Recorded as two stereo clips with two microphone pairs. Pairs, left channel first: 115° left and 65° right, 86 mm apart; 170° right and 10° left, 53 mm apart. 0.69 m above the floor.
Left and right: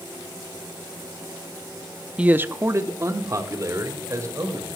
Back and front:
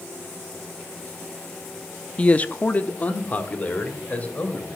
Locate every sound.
2.2 s a man speaking: 125° right, 0.5 m; by 4.8 s 115° right, 3 m